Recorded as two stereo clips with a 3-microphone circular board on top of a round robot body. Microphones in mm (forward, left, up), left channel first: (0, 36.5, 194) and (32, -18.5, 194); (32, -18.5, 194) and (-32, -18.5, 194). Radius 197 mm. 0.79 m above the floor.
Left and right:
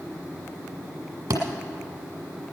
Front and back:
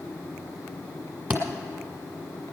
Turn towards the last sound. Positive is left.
turn(degrees=-110)